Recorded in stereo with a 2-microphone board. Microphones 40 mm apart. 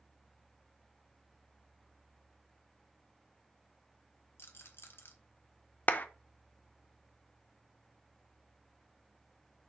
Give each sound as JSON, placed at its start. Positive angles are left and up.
{"t": 4.4, "sound": "a rattle", "side_deg": 75, "distance_m": 1.4}
{"t": 5.9, "sound": "a clap", "side_deg": 45, "distance_m": 0.7}